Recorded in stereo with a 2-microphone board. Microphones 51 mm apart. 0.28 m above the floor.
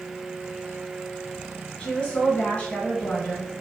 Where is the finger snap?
I don't hear a finger snap.